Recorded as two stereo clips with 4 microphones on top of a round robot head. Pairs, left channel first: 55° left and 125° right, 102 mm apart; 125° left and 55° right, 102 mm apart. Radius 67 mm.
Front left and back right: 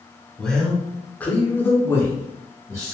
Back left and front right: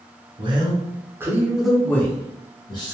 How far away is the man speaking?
About 1.2 m.